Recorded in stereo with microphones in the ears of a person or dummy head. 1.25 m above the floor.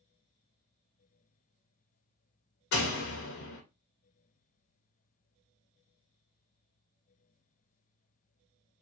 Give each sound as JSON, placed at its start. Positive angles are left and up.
{"t": 2.7, "sound": "a door slam", "side_deg": 65, "distance_m": 0.9}